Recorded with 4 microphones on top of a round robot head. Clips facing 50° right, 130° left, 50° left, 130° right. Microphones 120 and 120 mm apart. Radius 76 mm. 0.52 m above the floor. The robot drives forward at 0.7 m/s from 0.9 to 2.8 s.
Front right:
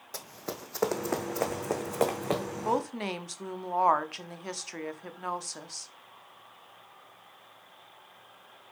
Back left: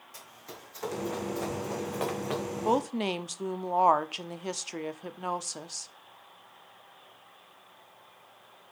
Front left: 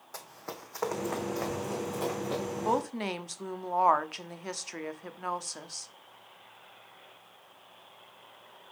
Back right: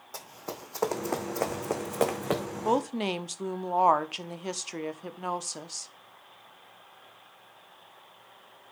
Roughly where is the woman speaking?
Behind.